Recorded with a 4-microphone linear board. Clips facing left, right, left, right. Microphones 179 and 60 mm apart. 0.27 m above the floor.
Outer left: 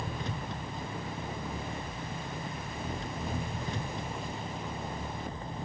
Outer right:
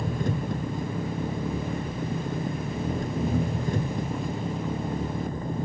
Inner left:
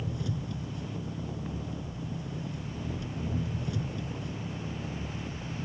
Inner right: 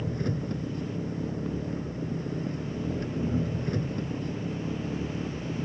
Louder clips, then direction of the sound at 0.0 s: Outer right 9 dB, inner right 5 dB; 50° right (ahead or behind).